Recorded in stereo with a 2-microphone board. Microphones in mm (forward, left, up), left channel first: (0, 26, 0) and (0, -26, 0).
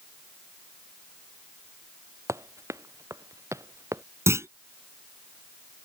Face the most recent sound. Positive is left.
turn(degrees=-60)  # may be behind; listen again after turning